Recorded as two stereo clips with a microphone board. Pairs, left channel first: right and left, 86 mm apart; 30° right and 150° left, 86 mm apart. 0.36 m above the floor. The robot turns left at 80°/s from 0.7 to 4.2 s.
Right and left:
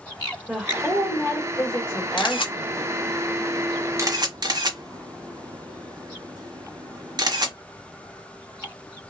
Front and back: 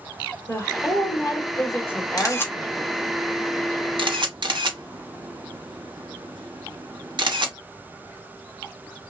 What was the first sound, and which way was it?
A woman speaking, 10° left.